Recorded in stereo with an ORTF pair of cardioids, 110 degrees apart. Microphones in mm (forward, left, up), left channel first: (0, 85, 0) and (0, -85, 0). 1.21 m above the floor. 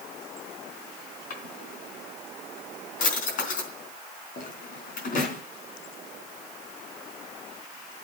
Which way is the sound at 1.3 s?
55° left.